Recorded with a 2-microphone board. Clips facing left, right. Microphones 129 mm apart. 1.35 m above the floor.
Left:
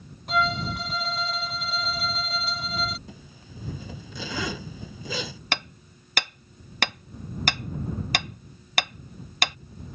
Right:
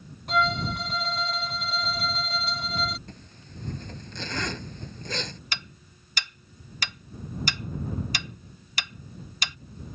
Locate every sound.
0.3 s a violin: centre (ahead or behind)
3.1 s a zipper: 5° left (ahead or behind)
5.5 s hammering: 60° left (ahead or behind)